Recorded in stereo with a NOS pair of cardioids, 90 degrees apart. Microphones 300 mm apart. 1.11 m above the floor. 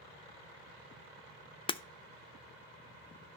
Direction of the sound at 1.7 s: 20° left.